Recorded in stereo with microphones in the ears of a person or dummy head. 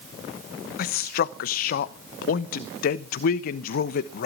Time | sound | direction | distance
0.8 | a man speaking | 50° left (ahead or behind) | 0.7 m